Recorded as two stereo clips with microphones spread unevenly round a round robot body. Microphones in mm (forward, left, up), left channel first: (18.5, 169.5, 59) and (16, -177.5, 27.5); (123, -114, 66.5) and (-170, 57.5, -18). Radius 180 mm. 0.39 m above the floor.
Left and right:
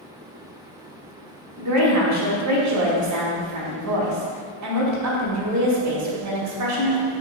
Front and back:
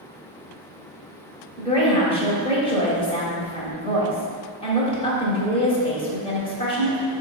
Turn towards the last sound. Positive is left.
turn(degrees=-110)